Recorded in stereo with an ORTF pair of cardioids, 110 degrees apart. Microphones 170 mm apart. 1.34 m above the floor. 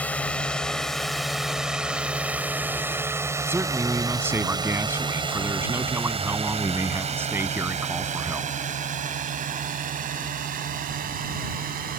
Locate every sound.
0.0 s a drone: 10° left; by 12.0 s 60° right
3.5 s a man speaking: 15° right